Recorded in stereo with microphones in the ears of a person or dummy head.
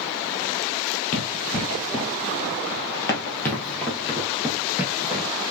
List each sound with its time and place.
1.1 s running footsteps: 45° left (ahead or behind), 2.0 m; by 5.3 s 15° right (ahead or behind), 2 m